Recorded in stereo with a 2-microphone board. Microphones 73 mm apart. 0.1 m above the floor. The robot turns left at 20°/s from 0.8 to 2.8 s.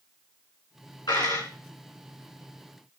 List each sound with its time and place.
1.1 s a dropped coin: 80° left, 4 m; by 1.5 s 75° left (ahead or behind), 4 m